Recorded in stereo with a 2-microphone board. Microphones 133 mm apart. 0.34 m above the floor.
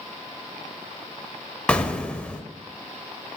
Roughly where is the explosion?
Centre.